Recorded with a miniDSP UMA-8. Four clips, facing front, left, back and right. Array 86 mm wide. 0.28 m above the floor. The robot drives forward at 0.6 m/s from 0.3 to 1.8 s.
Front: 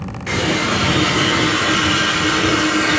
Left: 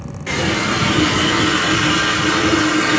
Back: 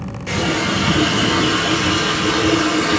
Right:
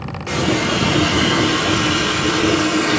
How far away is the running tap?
About 3.5 m.